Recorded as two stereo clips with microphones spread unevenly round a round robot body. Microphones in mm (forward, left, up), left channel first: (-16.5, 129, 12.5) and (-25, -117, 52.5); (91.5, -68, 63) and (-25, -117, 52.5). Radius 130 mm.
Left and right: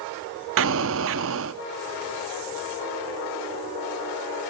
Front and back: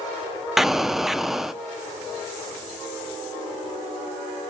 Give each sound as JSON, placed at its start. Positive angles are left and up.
{"t": 0.6, "sound": "an explosion", "azimuth_deg": -65, "distance_m": 0.6}